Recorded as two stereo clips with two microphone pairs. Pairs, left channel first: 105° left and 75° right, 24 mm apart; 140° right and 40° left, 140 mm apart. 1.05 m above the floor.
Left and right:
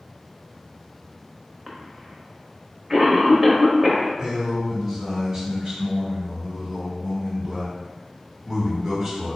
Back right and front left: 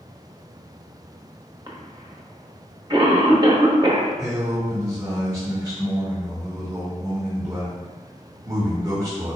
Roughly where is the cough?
Ahead.